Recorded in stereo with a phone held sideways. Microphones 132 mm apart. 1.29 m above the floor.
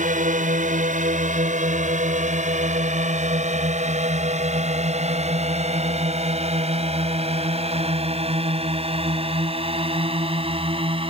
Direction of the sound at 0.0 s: 75° right (ahead or behind).